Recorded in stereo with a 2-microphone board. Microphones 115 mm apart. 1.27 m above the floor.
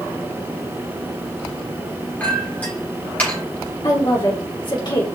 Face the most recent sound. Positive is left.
turn(degrees=40)  # may be behind; listen again after turning